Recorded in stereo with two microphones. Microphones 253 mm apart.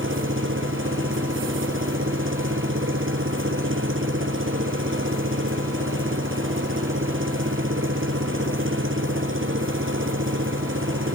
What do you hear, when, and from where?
0.0 s an engine running: 50° right (ahead or behind)